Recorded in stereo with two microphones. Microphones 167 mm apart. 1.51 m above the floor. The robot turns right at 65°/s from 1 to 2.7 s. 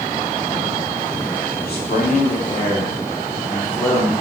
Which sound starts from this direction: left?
A man speaking, at 1.6 s.